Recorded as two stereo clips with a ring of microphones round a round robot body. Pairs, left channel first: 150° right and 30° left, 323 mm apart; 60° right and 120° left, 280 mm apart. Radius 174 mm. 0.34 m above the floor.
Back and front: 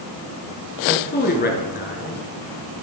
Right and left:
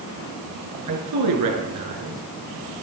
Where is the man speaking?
150° left, 5 m.